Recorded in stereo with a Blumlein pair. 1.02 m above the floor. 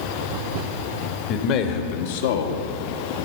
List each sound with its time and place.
1.3 s a man speaking: 35° left, 1.7 m; by 2.6 s 65° left, 1.7 m